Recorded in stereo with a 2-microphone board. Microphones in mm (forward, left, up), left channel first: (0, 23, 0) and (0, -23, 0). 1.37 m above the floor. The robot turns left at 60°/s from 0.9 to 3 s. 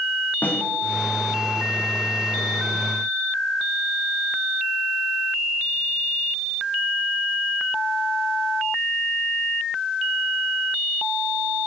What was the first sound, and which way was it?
A snare drum, 40° left (ahead or behind).